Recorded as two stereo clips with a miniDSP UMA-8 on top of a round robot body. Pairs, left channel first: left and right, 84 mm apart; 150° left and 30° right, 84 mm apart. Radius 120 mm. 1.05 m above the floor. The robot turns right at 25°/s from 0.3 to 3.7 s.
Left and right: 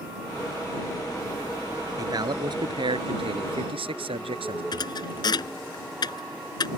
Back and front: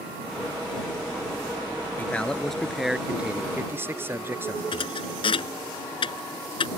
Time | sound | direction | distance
2.0 | a man speaking | 135° right | ?
4.7 | a thud | 130° left | ?